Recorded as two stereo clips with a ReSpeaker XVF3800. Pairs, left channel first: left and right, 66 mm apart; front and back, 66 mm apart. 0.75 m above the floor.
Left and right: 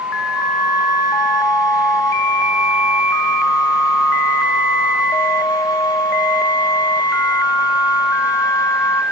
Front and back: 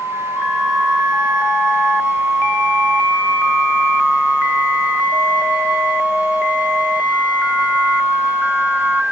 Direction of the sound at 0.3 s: 105° left.